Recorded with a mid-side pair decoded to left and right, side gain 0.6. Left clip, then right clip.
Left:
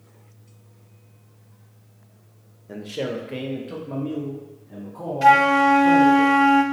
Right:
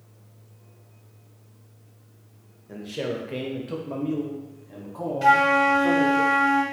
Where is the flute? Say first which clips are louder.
Left 3 dB; 20° left, 0.6 m.